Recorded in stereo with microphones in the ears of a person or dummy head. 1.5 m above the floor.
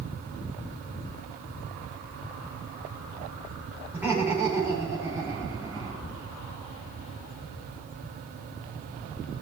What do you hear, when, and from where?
3.9 s laughter: 5° right (ahead or behind), 4.5 m; by 6.1 s 15° right (ahead or behind), 3.5 m